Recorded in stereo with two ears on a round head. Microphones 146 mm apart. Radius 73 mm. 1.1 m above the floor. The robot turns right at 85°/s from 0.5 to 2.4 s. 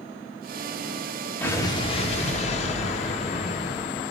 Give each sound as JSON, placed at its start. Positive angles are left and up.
{"t": 1.4, "sound": "an explosion", "azimuth_deg": 15, "distance_m": 0.9}